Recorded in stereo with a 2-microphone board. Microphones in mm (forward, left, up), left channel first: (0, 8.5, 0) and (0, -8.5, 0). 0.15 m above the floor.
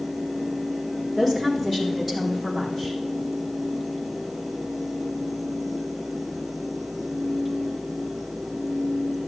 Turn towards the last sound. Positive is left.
turn(degrees=5)  # may be behind; listen again after turning